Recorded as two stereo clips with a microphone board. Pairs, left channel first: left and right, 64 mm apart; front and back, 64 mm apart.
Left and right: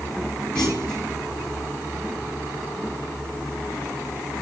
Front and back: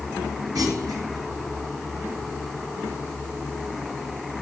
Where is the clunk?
165° left, 5 m.